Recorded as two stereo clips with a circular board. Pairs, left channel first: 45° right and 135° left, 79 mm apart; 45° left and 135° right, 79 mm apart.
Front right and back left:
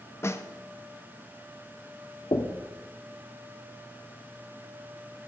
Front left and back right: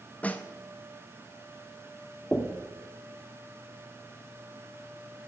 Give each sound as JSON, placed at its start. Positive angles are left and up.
{"t": 0.2, "sound": "a snare drum", "azimuth_deg": -15, "distance_m": 0.7}
{"t": 2.3, "sound": "knocking", "azimuth_deg": -35, "distance_m": 1.1}